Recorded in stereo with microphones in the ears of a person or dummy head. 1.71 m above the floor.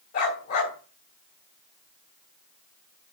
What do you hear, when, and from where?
0.1 s a dog barking: 50° left (ahead or behind), 3.5 m